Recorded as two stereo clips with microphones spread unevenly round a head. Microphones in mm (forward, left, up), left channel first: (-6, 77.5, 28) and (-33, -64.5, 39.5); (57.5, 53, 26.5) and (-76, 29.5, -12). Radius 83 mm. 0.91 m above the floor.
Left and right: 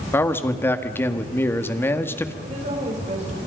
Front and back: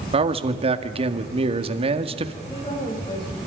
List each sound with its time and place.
0.1 s a man speaking: 155° left, 1.7 m
2.4 s a woman speaking: 50° right, 6.5 m